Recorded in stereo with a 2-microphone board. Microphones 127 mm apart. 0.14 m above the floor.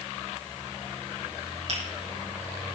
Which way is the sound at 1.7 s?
60° right (ahead or behind).